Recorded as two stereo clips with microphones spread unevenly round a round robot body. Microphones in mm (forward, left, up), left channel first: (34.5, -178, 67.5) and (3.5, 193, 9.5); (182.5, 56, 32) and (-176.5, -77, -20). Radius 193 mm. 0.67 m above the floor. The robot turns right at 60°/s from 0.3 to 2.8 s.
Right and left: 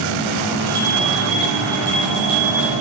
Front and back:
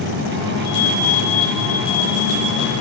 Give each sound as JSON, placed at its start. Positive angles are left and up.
{"t": 0.6, "sound": "a bell", "azimuth_deg": 75, "distance_m": 6.0}